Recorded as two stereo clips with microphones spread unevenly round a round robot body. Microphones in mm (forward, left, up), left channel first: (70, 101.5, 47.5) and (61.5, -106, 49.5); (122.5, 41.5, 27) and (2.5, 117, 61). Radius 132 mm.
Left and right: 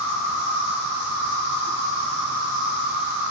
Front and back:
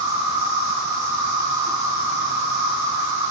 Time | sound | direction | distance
0.0 | an insect | 115° left | 1.2 m